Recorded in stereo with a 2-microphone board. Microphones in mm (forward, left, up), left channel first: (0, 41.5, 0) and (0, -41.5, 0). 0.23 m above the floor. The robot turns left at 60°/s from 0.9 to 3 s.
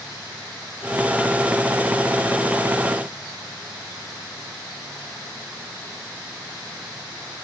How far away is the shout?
I don't hear a shout.